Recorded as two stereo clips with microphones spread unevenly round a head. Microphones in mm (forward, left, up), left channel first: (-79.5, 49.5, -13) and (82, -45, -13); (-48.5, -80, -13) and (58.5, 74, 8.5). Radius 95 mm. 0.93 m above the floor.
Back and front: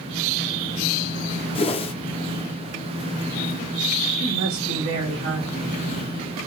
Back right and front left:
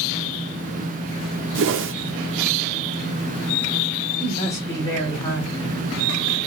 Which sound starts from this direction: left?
A whoosh, at 1.6 s.